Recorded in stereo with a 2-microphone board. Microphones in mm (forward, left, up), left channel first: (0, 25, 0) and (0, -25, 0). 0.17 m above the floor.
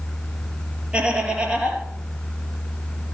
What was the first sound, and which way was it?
Laughter, 20° right (ahead or behind).